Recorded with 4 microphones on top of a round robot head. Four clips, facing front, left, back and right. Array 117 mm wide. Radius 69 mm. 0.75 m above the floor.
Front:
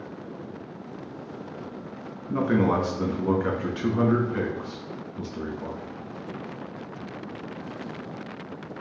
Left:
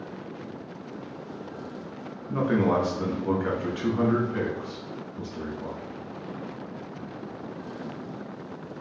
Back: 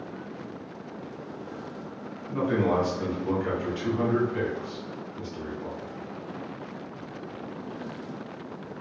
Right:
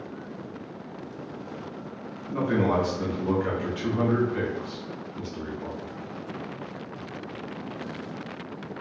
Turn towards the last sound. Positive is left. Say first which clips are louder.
# left 1 dB, front 2 dB
turn(degrees=10)